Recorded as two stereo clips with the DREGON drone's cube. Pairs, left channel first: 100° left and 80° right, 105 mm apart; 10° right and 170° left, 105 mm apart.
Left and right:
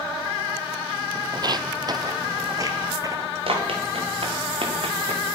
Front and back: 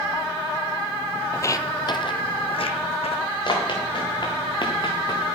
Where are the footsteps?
65° right, 0.6 m; by 3.4 s 20° right, 1.6 m.